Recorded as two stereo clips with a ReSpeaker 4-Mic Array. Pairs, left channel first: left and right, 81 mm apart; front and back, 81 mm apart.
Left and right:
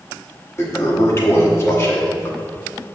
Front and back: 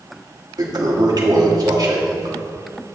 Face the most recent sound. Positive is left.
turn(degrees=145)